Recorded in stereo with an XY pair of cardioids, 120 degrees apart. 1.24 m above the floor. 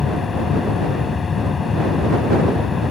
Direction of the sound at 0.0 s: 35° left.